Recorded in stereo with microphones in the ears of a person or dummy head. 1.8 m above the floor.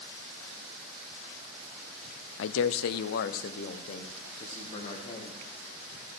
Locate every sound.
2.4 s a man speaking: 70° left (ahead or behind), 0.5 m; by 5.4 s 35° left (ahead or behind), 2.5 m